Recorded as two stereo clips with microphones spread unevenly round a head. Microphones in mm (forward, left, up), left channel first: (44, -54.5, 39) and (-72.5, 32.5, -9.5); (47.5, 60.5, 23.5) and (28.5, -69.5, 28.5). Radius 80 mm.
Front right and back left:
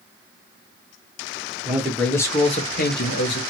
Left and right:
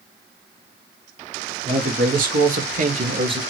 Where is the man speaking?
140° right, 1.5 m; by 3.4 s 45° right, 1.3 m.